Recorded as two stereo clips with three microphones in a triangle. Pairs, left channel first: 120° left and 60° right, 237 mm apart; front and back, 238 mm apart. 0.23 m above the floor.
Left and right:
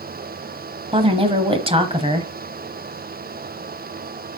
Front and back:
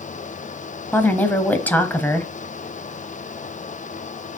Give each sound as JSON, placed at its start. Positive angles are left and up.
{"t": 0.9, "sound": "a woman speaking", "azimuth_deg": -70, "distance_m": 1.0}